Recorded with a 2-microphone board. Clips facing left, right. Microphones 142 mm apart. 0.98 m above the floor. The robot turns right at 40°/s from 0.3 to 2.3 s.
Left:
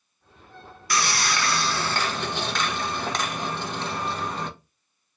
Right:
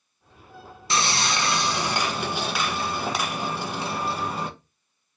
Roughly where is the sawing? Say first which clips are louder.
Right 1 dB; right.